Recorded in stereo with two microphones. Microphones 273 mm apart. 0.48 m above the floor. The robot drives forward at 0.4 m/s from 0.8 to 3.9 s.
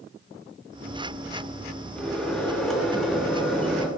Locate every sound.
1.9 s a microwave: 5° left (ahead or behind), 1.2 m; by 3.9 s centre (ahead or behind), 1.7 m